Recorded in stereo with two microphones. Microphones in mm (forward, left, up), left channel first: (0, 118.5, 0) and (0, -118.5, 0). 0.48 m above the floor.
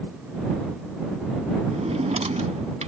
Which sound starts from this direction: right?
A drawer, at 1.7 s.